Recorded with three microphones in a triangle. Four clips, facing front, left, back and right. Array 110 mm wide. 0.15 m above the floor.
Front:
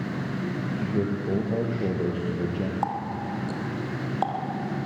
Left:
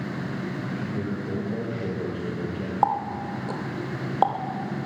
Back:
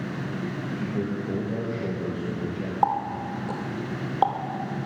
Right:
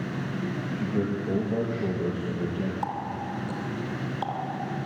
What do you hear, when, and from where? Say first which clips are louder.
0.7 s a man speaking: right 5 dB, front 2 dB; 30° right, 5.5 m; by 2.7 s 5° left, 4 m
2.8 s a running tap: left 7 dB, back 4 dB; 110° left, 3 m